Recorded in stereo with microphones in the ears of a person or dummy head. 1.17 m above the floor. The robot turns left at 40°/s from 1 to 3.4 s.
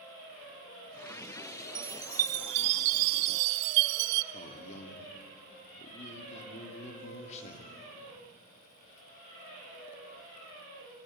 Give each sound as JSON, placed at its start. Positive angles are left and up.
{"t": 1.8, "sound": "a chime", "azimuth_deg": -5, "distance_m": 0.7}
{"t": 4.3, "sound": "a man speaking", "side_deg": 40, "distance_m": 2.0}